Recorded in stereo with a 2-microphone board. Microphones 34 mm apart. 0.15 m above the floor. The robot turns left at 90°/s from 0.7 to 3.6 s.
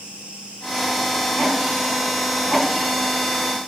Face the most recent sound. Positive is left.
turn(degrees=-45)